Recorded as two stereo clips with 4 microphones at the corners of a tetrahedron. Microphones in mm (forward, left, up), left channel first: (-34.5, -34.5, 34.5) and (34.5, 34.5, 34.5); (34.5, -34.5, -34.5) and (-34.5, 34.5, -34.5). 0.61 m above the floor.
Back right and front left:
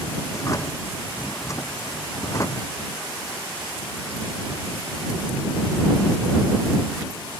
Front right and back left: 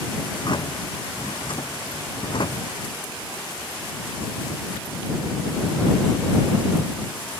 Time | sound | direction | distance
0.3 | a drawer | 80° right | ?